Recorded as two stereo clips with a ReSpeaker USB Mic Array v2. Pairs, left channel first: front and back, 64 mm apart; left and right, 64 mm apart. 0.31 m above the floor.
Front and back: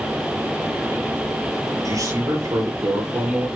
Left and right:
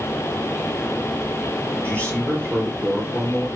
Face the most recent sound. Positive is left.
turn(degrees=160)